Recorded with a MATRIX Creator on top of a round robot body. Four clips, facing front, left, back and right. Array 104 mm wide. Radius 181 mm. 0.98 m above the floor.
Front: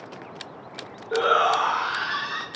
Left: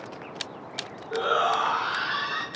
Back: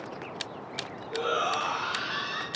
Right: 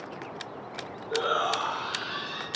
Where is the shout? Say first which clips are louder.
Left 3 dB, front 8 dB; 5° right, 1.3 m; by 2.5 s 35° left, 2.5 m.